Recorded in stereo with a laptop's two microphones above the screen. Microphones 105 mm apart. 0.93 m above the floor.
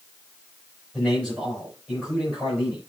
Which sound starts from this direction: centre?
A man speaking, at 0.9 s.